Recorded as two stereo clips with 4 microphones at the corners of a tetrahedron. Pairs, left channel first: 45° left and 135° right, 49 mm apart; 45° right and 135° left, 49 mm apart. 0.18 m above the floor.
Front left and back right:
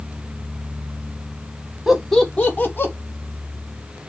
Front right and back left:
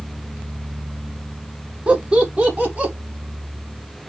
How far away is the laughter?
About 1.0 m.